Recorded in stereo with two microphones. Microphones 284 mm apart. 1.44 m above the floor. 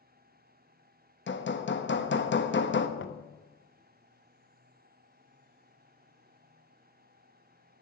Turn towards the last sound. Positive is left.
turn(degrees=45)  # may be behind; listen again after turning